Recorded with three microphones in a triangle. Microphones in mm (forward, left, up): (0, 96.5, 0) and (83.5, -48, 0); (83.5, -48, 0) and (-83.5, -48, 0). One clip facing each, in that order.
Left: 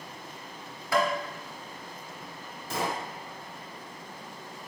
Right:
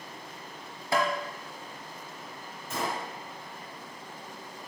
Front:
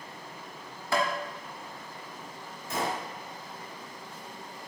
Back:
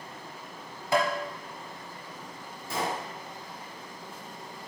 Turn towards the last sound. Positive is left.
turn(degrees=120)